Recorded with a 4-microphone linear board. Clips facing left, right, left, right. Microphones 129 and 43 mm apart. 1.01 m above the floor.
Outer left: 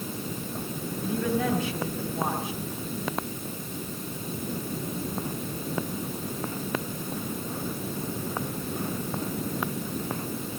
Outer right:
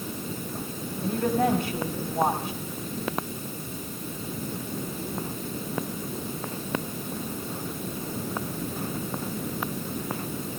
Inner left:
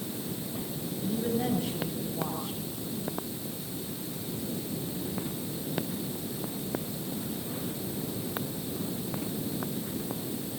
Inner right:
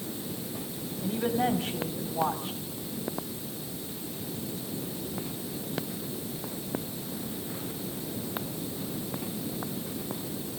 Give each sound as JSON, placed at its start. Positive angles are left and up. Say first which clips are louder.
{"t": 1.0, "sound": "a woman speaking", "louder": "outer right 3 dB, inner right 3 dB", "side_deg": -45, "distance_m": 3.0}